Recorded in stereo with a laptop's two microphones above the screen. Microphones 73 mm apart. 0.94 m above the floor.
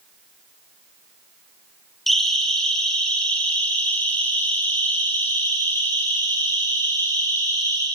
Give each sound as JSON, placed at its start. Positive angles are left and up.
{"t": 2.1, "sound": "a siren", "side_deg": 0, "distance_m": 4.0}